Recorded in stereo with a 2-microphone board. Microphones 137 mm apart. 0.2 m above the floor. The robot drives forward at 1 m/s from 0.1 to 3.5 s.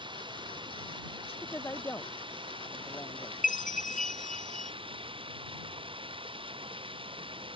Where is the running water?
35° right (ahead or behind); by 7.6 s 40° right (ahead or behind).